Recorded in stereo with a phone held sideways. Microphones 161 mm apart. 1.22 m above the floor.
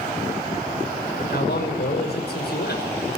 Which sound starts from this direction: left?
A man speaking, at 1.3 s.